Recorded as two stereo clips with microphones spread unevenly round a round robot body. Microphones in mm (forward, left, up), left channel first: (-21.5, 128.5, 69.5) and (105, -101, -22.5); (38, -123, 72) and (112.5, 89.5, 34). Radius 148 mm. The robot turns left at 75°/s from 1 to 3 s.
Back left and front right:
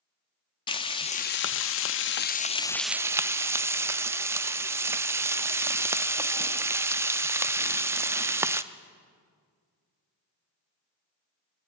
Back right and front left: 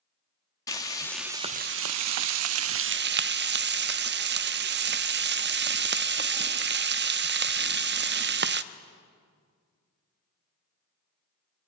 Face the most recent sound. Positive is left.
turn(degrees=30)